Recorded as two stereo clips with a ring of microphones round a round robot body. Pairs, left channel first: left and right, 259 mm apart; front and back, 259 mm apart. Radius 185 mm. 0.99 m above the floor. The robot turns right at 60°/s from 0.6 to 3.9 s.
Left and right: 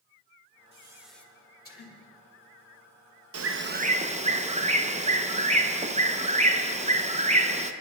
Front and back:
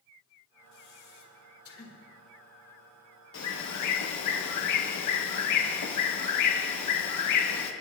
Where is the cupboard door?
No cupboard door in this recording.